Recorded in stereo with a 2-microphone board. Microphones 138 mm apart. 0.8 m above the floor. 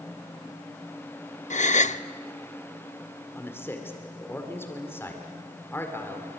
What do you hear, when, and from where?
1.5 s a gasp: 60° left (ahead or behind), 0.6 m
3.4 s a man speaking: 15° left (ahead or behind), 2.5 m